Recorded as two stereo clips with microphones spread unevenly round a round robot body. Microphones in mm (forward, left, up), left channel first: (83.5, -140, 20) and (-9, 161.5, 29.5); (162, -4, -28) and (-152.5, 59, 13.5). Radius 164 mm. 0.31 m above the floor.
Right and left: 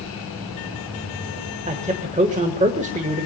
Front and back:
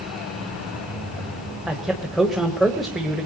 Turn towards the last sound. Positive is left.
turn(degrees=65)